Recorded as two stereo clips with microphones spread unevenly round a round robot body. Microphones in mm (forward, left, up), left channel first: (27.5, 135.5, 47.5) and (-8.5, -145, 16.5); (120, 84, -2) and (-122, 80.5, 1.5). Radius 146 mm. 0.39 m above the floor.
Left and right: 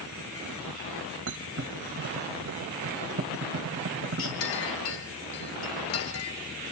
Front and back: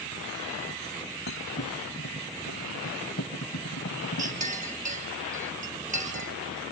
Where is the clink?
125° left, 4 m.